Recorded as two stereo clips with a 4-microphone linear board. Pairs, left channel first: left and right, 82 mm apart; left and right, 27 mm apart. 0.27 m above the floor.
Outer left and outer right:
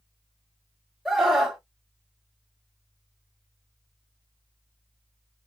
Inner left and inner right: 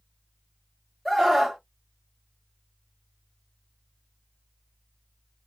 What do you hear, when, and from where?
1.1 s a scream: 5° right (ahead or behind), 1.4 m